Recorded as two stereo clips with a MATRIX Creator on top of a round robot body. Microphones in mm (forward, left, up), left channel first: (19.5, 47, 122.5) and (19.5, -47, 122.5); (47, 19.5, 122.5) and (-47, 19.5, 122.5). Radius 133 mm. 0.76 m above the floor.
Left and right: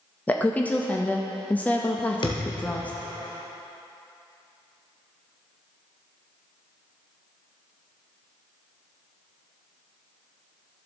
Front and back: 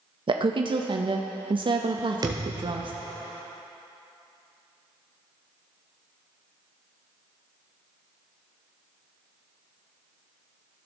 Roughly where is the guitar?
I don't hear a guitar.